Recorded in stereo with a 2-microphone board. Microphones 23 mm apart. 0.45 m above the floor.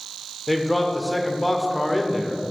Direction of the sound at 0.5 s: 30° left (ahead or behind).